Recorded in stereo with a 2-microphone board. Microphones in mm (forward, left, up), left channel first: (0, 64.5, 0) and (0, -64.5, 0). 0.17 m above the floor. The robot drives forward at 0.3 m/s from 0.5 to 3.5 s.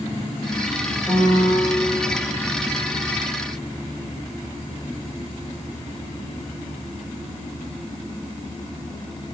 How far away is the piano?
About 8 m.